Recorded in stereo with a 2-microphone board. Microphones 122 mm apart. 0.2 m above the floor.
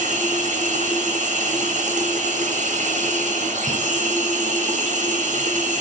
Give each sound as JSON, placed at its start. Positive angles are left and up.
{"t": 0.0, "sound": "running water", "side_deg": -85, "distance_m": 2.0}